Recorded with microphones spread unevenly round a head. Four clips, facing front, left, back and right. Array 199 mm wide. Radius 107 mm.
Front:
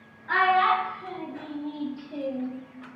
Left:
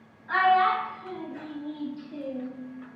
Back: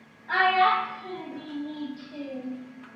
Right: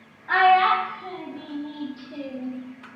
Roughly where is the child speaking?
Right.